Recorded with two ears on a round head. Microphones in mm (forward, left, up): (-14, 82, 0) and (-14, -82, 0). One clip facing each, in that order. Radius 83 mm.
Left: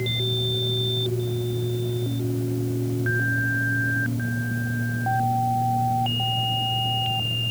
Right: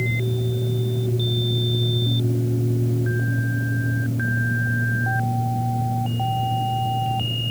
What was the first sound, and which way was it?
Only background noise.